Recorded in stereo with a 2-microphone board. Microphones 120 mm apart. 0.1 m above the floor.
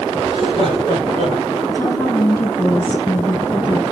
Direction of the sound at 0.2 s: 45° right (ahead or behind).